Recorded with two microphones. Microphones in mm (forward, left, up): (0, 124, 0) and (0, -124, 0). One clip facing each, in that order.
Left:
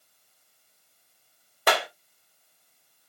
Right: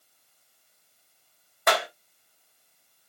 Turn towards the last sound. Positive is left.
turn(degrees=35)  # may be behind; listen again after turning